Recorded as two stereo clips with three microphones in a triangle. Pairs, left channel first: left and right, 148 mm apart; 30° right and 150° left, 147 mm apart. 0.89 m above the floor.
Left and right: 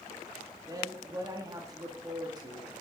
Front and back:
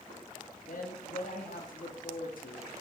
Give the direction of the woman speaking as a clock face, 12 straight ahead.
1 o'clock.